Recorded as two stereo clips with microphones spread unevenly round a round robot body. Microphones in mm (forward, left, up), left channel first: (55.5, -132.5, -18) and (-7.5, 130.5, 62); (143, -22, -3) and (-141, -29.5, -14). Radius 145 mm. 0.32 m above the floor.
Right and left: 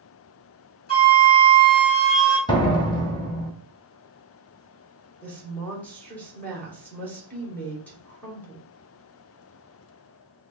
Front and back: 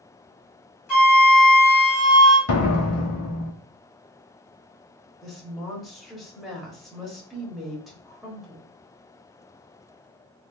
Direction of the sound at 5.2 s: 95° right.